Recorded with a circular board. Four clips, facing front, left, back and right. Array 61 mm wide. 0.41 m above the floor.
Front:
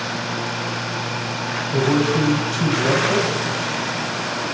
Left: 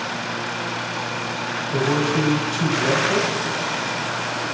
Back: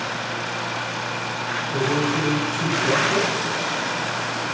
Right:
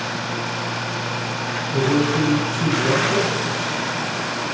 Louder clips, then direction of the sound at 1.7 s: Right 2 dB, front 4 dB; 30° left.